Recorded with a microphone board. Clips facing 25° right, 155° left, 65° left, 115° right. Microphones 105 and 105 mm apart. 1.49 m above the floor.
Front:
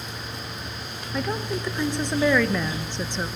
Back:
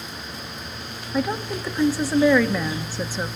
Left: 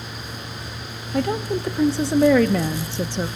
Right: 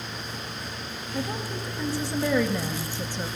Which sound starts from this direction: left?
A woman speaking, at 1.1 s.